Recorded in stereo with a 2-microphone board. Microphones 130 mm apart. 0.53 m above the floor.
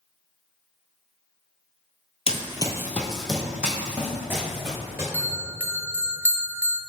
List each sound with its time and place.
2.3 s running footsteps: 50° left (ahead or behind), 0.7 m; by 5.0 s 20° right (ahead or behind), 3 m
5.1 s a bell: 15° right (ahead or behind), 0.7 m